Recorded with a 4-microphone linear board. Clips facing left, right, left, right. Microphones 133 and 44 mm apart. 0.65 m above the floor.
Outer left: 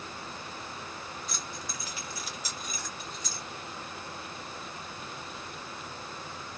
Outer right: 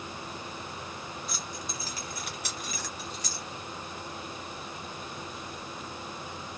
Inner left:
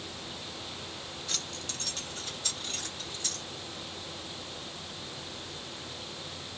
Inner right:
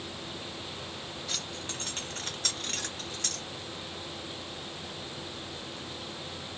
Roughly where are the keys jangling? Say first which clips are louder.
Outer right 1 dB, even; centre.